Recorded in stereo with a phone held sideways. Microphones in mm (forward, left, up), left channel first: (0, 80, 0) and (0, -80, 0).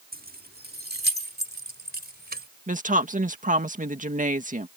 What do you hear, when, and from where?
0.1 s keys jangling: 70° right (ahead or behind); by 2.5 s 80° right
2.7 s a woman speaking: 55° right (ahead or behind)